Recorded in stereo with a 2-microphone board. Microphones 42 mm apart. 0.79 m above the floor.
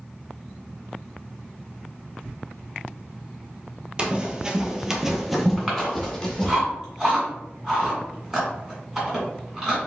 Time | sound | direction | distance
4.0 | running footsteps | 20° right (ahead or behind) | 0.9 m
5.6 | chewing | 10° right (ahead or behind) | 1.9 m